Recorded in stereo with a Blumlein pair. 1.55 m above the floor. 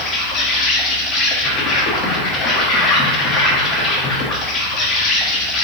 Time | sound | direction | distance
0.0 | an insect | 30° left | 1.2 m